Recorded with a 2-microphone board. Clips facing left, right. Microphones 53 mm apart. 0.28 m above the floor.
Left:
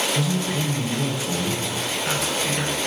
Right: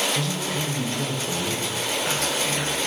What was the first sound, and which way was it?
A man speaking, 10° left (ahead or behind).